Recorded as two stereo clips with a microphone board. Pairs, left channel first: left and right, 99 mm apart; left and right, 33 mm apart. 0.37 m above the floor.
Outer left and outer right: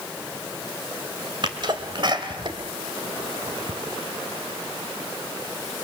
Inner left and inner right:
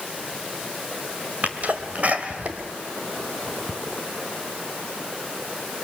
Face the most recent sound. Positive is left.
turn(degrees=-50)  # may be behind; listen again after turning